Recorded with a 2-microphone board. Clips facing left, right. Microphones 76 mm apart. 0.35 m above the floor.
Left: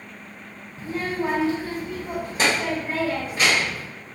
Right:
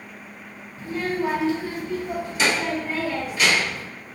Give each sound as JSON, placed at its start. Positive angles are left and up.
{"t": 0.8, "sound": "a child speaking", "side_deg": 30, "distance_m": 1.6}